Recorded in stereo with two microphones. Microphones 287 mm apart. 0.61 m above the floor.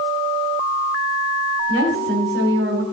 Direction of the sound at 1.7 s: 45° right (ahead or behind).